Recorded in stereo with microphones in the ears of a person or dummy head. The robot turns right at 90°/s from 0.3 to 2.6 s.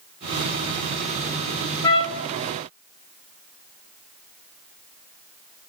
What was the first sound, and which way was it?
A trumpet, 20° left.